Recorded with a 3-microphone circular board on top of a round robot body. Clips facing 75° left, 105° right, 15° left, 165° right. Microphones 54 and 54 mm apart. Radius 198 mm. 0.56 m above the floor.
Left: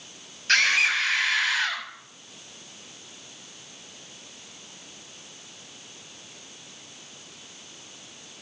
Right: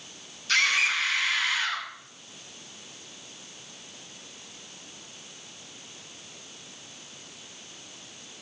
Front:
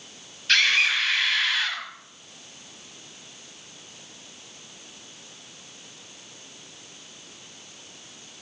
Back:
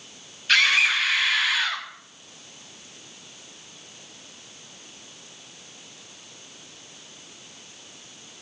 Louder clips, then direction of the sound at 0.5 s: Left 3 dB, back 2 dB; 110° left.